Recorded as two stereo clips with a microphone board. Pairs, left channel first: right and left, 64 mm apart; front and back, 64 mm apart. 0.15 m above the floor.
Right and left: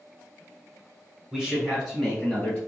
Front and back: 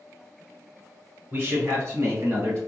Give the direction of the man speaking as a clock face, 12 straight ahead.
6 o'clock.